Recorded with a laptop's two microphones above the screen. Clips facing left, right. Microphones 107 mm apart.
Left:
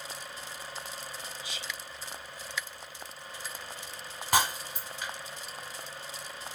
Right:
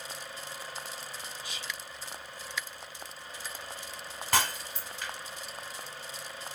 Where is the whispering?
60° right (ahead or behind), 2 m.